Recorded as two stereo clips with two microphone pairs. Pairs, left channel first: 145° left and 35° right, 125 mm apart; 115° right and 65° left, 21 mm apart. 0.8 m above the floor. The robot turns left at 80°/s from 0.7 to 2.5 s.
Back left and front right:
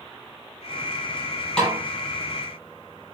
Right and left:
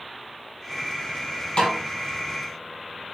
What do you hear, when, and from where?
1.6 s a snare drum: 135° right, 6 m; by 1.8 s 150° right, 6 m